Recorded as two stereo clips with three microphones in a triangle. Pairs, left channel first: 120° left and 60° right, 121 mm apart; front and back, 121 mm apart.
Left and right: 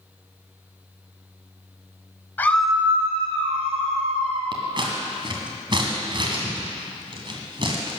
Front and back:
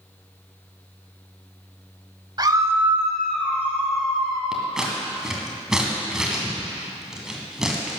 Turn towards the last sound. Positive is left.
turn(degrees=-95)